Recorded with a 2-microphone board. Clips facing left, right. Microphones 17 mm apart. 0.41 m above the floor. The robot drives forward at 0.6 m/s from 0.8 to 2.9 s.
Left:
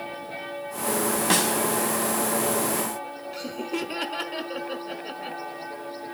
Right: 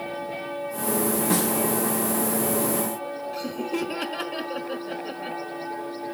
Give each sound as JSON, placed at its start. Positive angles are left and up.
{"t": 1.3, "sound": "a snare drum", "side_deg": 50, "distance_m": 1.4}
{"t": 3.3, "sound": "laughter", "side_deg": 15, "distance_m": 1.0}